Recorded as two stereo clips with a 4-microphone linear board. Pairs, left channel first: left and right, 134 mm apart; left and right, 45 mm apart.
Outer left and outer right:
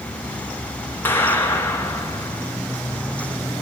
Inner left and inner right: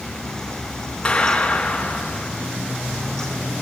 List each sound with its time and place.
1.1 s a clap: 15° left (ahead or behind), 4 m